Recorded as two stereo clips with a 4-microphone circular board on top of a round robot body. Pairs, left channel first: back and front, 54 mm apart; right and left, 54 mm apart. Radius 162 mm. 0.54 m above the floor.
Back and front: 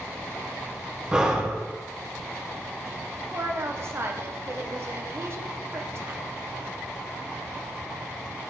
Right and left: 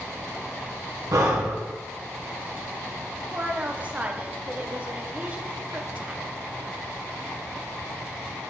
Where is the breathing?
75° left, 1.4 m.